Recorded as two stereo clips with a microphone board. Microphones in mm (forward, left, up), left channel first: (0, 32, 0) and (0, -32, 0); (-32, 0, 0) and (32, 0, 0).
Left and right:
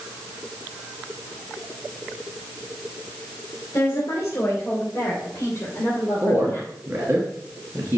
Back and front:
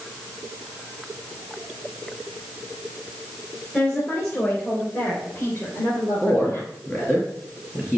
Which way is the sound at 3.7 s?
125° left.